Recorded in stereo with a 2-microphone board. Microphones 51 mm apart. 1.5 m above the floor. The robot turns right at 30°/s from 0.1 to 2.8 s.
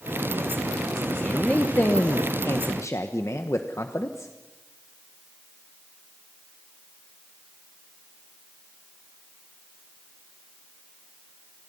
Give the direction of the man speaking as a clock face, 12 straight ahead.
11 o'clock.